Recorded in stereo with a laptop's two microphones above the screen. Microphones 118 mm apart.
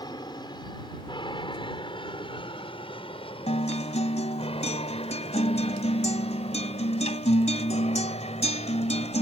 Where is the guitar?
65° left (ahead or behind).